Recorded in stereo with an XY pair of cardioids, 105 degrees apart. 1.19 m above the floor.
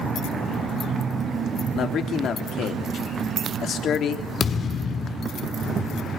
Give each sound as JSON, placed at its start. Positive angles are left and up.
{"t": 1.7, "sound": "a man speaking", "azimuth_deg": 60, "distance_m": 3.5}
{"t": 4.4, "sound": "a thud", "azimuth_deg": 45, "distance_m": 1.7}